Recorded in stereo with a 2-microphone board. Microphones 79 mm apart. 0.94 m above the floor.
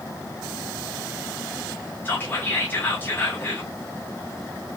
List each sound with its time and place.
2.0 s whispering: 25° left (ahead or behind), 1.0 m